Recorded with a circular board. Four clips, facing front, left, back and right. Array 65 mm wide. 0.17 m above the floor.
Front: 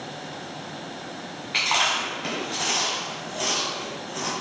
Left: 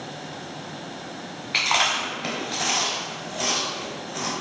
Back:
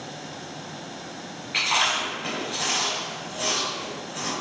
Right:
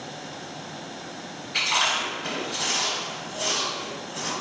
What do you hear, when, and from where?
1.5 s chewing: 80° left, 0.9 m